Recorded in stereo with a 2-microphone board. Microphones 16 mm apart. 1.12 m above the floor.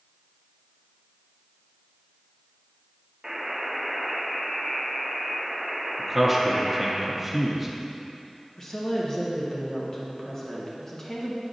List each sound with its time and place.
3.2 s a buzzer: 25° right (ahead or behind), 1.1 m
6.0 s a man speaking: 15° right (ahead or behind), 0.6 m
8.6 s a woman speaking: 30° left (ahead or behind), 0.9 m